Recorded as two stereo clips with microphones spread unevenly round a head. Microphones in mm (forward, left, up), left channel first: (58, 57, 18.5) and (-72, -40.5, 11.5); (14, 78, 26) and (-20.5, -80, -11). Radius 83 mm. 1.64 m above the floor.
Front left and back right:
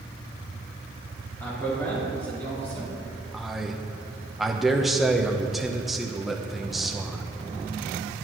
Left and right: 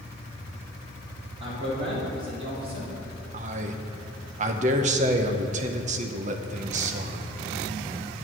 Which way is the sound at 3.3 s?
50° right.